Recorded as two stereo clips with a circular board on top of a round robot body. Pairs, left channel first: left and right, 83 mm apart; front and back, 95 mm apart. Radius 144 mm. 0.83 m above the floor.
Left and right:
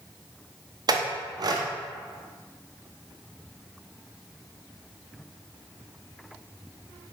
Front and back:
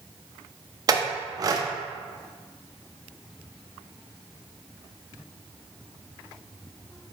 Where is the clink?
130° right, 0.5 m.